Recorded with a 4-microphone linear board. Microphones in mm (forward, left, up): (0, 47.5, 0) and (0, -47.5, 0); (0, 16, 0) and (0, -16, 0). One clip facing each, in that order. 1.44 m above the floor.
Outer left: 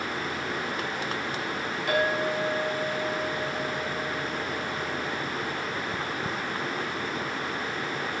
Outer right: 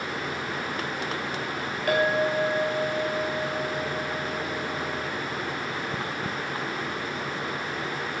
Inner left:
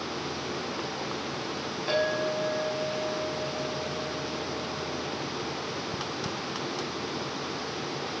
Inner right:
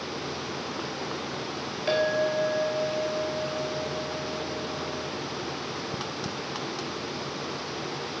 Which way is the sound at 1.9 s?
55° right (ahead or behind).